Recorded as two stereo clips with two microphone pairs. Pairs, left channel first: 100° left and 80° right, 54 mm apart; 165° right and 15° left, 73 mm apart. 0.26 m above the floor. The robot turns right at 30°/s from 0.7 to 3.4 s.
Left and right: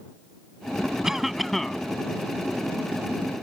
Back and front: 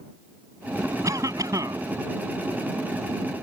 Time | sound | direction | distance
1.0 | a cough | 5° right | ?